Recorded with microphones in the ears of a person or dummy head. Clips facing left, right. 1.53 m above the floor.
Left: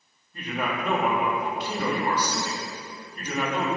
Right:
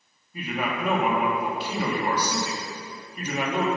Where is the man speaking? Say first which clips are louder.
Right 1 dB; 15° right (ahead or behind), 2.5 m.